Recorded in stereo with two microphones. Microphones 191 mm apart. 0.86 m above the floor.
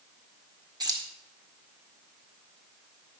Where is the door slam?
I don't hear a door slam.